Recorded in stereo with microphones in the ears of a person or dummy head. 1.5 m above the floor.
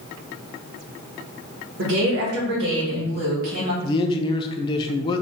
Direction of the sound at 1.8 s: 80° right.